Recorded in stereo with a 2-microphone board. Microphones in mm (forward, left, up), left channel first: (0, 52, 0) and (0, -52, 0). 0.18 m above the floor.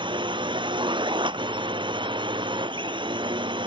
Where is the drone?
50° right (ahead or behind).